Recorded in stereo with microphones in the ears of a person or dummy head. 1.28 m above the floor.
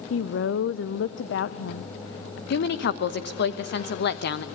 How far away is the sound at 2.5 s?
About 1.0 m.